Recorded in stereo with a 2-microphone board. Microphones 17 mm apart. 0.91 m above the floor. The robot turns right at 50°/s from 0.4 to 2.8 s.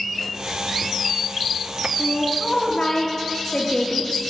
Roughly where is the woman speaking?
Left.